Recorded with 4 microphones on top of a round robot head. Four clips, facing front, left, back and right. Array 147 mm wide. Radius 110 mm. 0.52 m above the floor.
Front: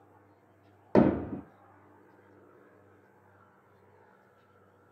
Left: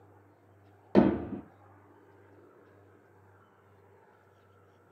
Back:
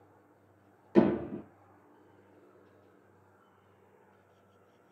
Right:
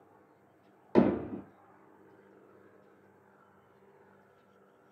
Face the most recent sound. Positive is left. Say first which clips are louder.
# left 2 dB, front 2 dB
turn(degrees=25)